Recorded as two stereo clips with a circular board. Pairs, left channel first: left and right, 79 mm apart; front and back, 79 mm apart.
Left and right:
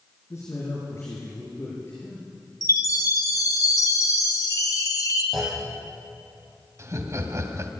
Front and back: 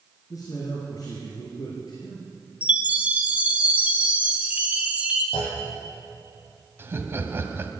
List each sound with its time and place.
0.3 s a man speaking: 40° left, 4 m; by 2.3 s 30° left, 6 m
2.6 s a chime: 115° left, 2 m
5.3 s a clunk: 5° right, 8.5 m
6.8 s laughter: 130° right, 2 m